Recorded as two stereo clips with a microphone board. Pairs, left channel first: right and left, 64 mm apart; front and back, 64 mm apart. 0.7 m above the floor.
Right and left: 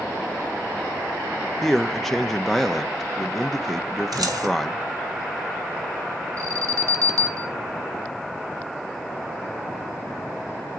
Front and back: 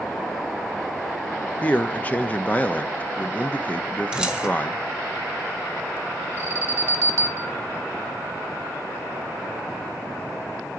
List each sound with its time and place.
1.6 s a man speaking: 10° right, 0.7 m
4.1 s keys jangling: 105° left, 1.7 m
6.4 s an alarm: 130° left, 1.4 m